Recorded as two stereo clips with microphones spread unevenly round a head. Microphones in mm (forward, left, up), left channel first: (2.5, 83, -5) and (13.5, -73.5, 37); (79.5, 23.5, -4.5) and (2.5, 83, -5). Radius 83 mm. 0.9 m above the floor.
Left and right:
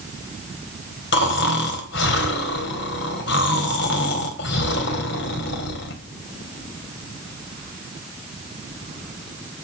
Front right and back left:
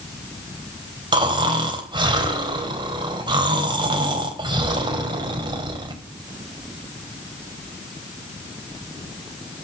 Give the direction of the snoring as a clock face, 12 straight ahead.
9 o'clock.